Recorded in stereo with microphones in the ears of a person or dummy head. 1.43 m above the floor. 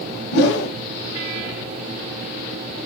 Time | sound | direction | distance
0.3 | a whoosh | 55° left (ahead or behind) | 0.6 m